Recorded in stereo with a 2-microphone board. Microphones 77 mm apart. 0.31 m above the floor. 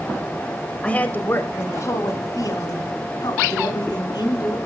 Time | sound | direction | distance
0.8 | a woman speaking | 15° left (ahead or behind) | 1.5 m